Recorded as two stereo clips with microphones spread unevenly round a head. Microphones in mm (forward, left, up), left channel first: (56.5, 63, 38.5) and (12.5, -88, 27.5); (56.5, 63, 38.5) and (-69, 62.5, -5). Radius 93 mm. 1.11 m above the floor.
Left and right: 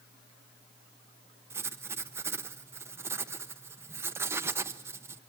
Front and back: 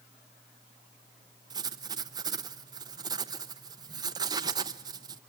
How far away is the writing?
About 0.8 m.